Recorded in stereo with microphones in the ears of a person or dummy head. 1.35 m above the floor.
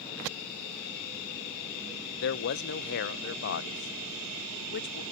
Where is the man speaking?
60° left (ahead or behind), 0.6 m.